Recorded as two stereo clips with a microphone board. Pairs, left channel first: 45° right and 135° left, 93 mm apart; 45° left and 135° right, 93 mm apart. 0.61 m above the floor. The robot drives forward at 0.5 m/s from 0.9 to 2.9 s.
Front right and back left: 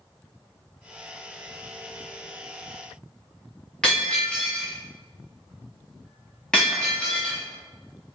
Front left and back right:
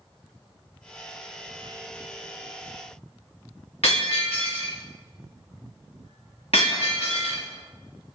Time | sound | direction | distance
3.8 | breaking glass | 40° left | 8.5 m